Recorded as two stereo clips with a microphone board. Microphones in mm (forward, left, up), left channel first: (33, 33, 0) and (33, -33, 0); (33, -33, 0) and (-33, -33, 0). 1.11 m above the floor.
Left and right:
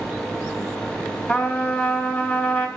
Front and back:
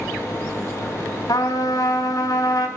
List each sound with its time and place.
1.3 s a trumpet: 25° left, 3.5 m